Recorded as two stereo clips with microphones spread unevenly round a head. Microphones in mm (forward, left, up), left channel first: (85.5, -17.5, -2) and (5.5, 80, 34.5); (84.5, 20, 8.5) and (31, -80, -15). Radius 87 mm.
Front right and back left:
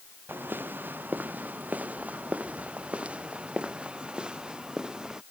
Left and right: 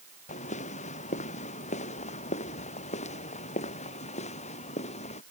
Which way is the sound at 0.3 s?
55° left.